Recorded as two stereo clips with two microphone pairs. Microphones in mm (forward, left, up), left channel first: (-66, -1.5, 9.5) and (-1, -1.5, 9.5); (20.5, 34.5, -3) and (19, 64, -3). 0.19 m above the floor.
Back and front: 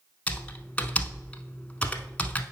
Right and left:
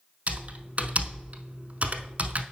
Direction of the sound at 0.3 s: 115° left.